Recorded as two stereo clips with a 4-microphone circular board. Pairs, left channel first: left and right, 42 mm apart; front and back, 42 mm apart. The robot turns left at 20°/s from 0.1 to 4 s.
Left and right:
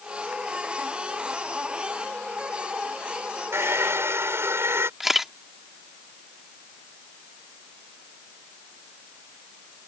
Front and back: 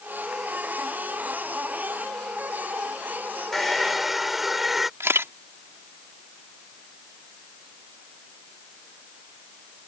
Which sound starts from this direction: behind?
A camera shutter, at 5.0 s.